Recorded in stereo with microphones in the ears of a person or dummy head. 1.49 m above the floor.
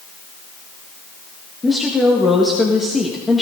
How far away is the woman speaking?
About 1.7 m.